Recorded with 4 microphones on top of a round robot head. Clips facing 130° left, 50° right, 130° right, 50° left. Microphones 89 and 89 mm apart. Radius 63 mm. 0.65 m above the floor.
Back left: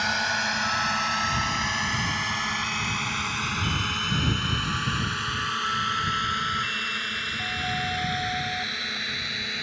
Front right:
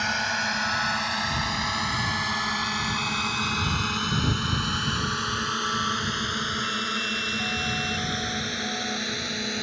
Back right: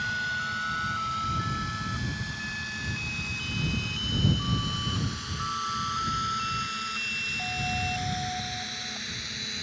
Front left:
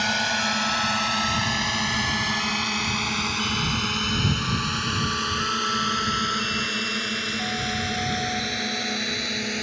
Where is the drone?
45° left; by 9.6 s 15° left.